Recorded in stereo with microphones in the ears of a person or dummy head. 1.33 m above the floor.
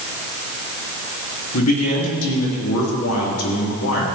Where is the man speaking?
85° left, 3 m.